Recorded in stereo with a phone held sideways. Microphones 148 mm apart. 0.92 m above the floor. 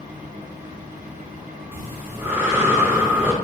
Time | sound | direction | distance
0.0 | a fan | 55° right (ahead or behind) | 1.1 m
1.7 | breathing | 15° right (ahead or behind) | 0.6 m